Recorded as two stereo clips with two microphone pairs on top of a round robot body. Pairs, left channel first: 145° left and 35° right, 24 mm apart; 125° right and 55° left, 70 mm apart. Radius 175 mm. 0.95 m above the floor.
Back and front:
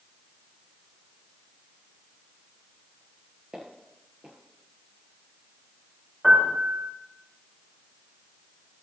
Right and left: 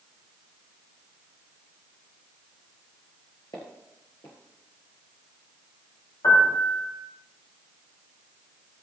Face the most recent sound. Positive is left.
turn(degrees=-100)